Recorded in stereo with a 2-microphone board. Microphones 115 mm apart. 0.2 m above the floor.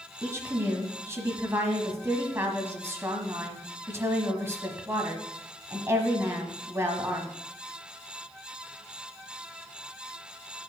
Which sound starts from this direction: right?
A woman speaking, at 0.2 s.